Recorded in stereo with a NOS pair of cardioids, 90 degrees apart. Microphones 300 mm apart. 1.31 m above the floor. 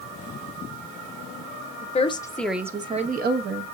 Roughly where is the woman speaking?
Ahead left.